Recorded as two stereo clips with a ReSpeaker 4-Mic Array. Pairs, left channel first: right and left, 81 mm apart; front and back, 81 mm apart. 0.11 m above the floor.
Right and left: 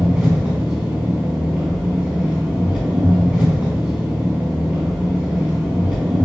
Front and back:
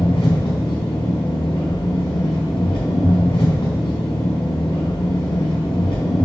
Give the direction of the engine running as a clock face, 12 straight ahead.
12 o'clock.